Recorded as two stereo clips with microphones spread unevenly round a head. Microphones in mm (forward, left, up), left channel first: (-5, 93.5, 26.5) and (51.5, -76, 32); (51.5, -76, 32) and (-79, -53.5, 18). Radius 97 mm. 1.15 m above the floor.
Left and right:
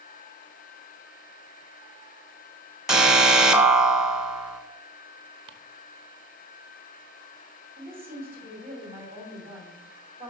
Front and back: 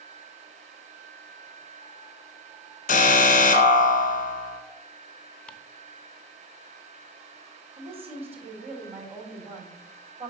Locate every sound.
2.9 s an alarm: 15° left, 1.5 m
5.5 s ticking: 70° right, 0.7 m
7.8 s a woman speaking: 150° right, 3.5 m